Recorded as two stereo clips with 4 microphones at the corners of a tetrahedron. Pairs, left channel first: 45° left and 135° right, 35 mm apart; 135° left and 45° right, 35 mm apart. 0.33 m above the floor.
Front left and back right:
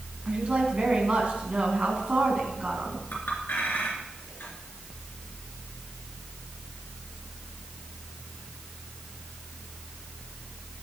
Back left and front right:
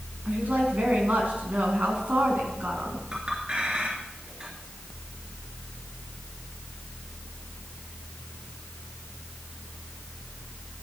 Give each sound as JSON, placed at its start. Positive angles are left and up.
{"t": 0.2, "sound": "a woman speaking", "azimuth_deg": -85, "distance_m": 3.5}
{"t": 3.1, "sound": "a clink", "azimuth_deg": 15, "distance_m": 3.5}